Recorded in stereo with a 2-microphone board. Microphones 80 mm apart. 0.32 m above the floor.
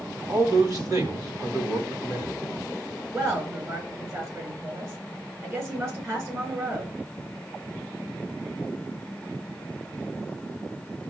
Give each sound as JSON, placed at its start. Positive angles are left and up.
{"t": 0.3, "sound": "a man speaking", "side_deg": -50, "distance_m": 2.5}
{"t": 3.1, "sound": "a woman speaking", "side_deg": -30, "distance_m": 5.0}